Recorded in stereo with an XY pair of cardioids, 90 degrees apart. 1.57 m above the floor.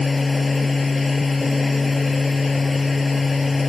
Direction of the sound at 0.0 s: 25° left.